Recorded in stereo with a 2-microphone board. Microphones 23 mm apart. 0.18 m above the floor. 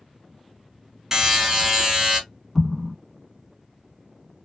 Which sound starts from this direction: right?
A buzzer, at 1.1 s.